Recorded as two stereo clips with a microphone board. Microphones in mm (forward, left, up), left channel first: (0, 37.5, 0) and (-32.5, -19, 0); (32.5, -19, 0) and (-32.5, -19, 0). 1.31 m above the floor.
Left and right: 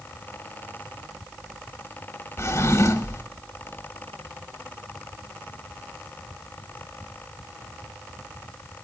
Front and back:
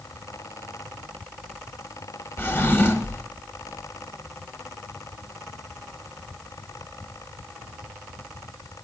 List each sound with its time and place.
2.4 s a drawer: 40° left, 1.5 m